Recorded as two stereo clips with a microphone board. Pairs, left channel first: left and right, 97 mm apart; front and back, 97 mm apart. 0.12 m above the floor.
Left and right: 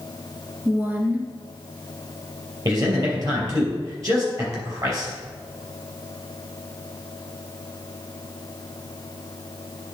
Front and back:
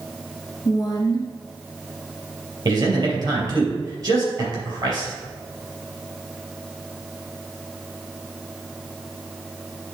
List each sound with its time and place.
0.7 s a woman speaking: 25° right, 1.9 m
2.6 s a man speaking: 135° right, 3 m